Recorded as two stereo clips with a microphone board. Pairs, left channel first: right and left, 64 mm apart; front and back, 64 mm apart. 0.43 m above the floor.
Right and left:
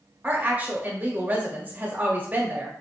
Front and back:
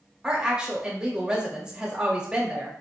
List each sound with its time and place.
0.2 s a woman speaking: 115° left, 0.8 m